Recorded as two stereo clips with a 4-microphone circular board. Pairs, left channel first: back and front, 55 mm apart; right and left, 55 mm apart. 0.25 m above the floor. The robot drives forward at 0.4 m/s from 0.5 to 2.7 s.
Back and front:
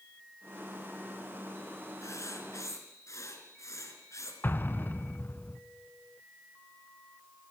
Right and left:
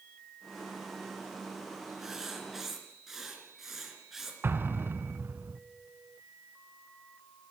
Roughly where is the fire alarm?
No fire alarm in this recording.